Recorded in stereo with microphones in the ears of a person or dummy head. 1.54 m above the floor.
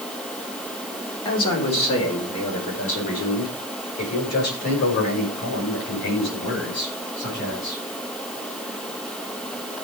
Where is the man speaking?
15° left (ahead or behind), 4 m; by 7.8 s 55° left (ahead or behind), 9 m.